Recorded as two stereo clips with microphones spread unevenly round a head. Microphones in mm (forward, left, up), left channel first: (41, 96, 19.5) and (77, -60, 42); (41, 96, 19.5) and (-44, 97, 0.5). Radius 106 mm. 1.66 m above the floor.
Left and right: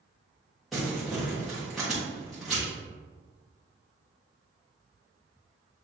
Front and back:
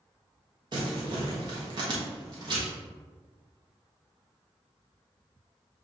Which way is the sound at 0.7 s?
155° right.